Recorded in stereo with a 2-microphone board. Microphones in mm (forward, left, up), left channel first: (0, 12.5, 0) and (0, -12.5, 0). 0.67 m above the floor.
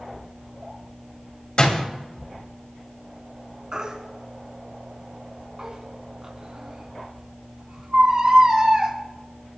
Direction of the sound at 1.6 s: 45° left (ahead or behind).